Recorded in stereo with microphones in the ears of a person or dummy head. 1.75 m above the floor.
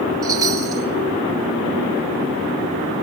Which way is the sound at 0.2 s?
20° right (ahead or behind).